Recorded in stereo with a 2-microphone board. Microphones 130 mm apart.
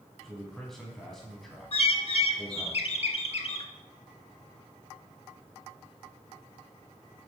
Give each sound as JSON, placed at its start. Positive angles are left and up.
{"t": 0.2, "sound": "a man speaking", "side_deg": 0, "distance_m": 1.8}
{"t": 1.7, "sound": "a bird", "side_deg": 50, "distance_m": 0.6}